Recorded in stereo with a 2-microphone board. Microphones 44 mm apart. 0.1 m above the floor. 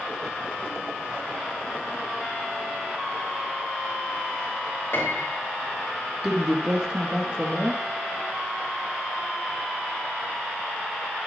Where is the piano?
70° left (ahead or behind), 4 m.